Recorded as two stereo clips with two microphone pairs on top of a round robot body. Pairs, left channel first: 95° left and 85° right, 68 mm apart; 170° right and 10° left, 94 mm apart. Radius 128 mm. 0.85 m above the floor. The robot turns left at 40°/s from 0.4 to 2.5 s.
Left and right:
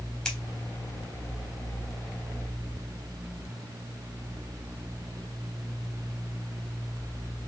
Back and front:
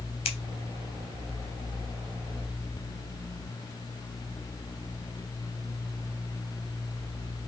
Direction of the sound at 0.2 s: 175° left.